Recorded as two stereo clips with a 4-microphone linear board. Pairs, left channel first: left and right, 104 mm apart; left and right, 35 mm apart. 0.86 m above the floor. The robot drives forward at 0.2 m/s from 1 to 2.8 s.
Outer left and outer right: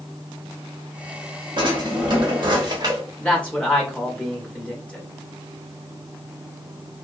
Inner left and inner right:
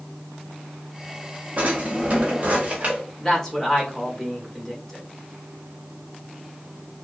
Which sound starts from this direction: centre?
A man speaking, at 3.2 s.